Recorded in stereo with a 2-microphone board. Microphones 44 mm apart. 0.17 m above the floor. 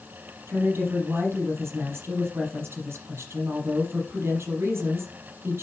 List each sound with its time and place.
0.5 s a woman speaking: 75° right (ahead or behind), 5.5 m